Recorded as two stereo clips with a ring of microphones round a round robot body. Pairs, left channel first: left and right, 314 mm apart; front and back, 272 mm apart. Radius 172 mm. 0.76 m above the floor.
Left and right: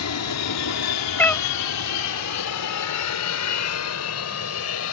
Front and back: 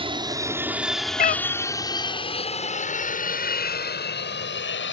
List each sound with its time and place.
0.0 s an aircraft: 115° left; by 4.9 s 45° left
1.2 s a cat meowing: 10° left